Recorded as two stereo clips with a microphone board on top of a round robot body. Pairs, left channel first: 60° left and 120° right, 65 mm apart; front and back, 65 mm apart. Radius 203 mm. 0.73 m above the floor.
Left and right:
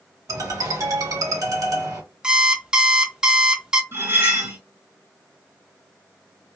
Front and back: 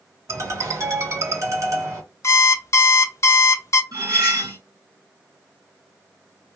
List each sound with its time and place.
0.3 s a ringtone: 140° right, 1.4 m
2.2 s an alarm clock: 40° right, 0.5 m
3.9 s cutlery clinking: 165° right, 1.8 m